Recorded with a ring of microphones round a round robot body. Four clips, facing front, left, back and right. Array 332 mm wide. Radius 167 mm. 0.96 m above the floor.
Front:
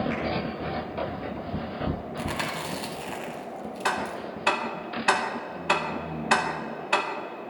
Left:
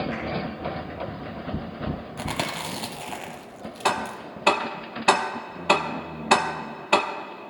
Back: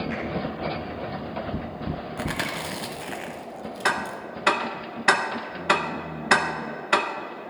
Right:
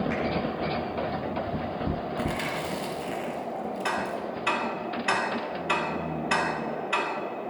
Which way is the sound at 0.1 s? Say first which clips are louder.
Right 2 dB, even; 75° right.